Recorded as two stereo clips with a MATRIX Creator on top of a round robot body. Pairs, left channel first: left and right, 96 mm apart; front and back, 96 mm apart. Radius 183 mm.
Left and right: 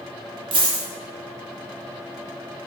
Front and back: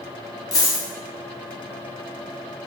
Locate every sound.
0.5 s a dropped coin: 55° right, 0.5 m